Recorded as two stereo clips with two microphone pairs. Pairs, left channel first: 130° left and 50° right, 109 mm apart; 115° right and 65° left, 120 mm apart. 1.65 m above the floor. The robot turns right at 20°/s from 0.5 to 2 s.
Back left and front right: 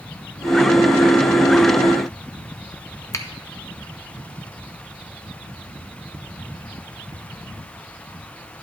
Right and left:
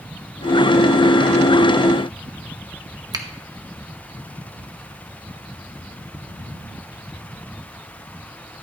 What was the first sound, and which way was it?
A finger snap, 95° left.